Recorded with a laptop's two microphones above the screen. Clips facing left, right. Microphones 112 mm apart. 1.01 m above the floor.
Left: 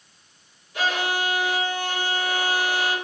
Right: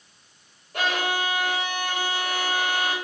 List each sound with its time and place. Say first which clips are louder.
0.7 s a violin: left 1 dB; 55° right (ahead or behind), 1.5 m